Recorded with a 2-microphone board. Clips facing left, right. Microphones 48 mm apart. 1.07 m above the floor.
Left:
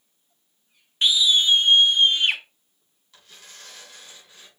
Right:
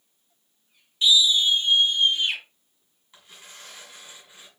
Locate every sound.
1.0 s a scream: 50° left (ahead or behind), 0.5 m; by 2.4 s 60° left (ahead or behind), 1.3 m
3.1 s tearing paper: 15° right (ahead or behind), 6 m